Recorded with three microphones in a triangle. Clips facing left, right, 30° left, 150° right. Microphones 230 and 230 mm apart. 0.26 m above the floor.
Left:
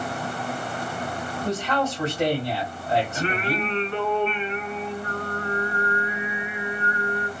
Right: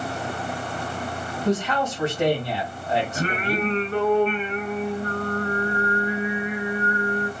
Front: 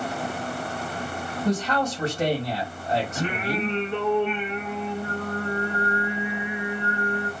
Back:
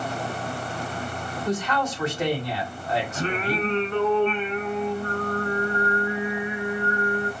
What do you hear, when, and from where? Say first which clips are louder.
1.4 s a man speaking: right 2 dB, front 2 dB; 25° left, 1.7 m
3.1 s singing: right 1 dB, back 1 dB; 45° right, 1.0 m